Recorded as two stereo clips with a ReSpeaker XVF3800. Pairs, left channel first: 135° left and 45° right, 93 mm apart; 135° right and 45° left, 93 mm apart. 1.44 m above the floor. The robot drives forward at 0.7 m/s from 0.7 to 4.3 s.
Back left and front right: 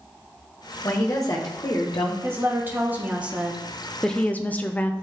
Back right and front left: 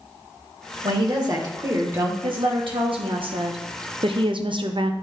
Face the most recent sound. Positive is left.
turn(degrees=65)